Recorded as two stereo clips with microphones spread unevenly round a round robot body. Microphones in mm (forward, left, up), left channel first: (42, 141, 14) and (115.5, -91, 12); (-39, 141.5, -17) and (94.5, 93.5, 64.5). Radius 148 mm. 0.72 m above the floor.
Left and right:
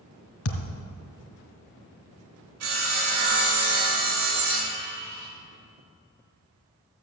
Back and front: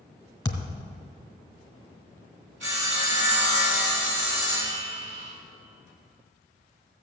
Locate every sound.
0.5 s a thud: 85° left, 1.9 m
2.6 s sawing: 65° right, 3.5 m